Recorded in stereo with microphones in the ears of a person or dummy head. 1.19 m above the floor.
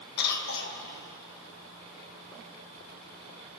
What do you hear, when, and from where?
0.2 s a cough: 55° left (ahead or behind), 1.2 m